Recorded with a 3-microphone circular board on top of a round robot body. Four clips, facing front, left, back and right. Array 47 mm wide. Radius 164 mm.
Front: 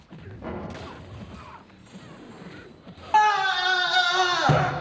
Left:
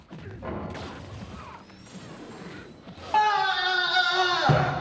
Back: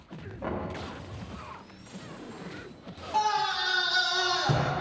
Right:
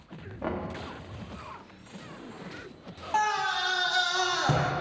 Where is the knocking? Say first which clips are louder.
Right 2 dB, back 1 dB; 105° right, 1.6 m.